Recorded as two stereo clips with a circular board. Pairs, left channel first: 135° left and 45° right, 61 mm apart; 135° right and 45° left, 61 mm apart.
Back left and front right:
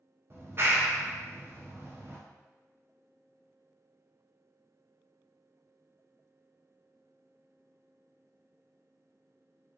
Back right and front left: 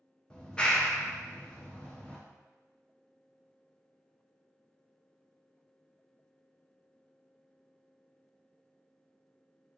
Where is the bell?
I don't hear a bell.